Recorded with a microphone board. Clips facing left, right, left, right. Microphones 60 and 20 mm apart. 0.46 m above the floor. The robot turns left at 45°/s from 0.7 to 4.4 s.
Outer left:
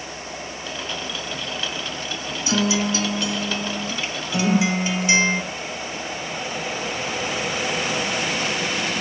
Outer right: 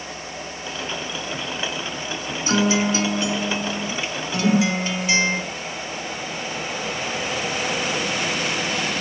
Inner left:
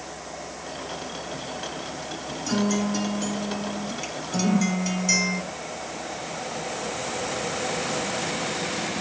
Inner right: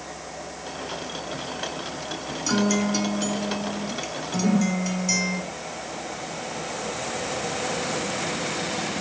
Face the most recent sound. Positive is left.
turn(degrees=-65)  # may be behind; listen again after turning